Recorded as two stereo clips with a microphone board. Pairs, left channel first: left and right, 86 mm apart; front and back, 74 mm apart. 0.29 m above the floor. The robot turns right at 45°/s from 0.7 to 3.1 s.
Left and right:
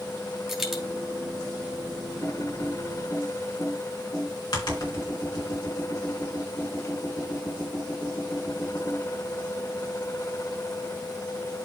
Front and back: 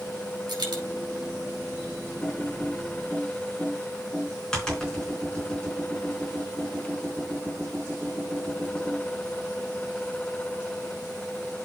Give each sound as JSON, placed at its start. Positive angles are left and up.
{"t": 0.5, "sound": "a dropped coin", "azimuth_deg": 180, "distance_m": 3.0}
{"t": 2.2, "sound": "typing on a keyboard", "azimuth_deg": 40, "distance_m": 4.0}